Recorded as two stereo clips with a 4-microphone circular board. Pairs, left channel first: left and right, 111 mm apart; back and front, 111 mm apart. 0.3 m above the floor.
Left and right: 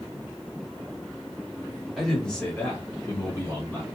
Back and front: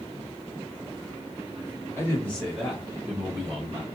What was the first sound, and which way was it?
A man speaking, straight behind.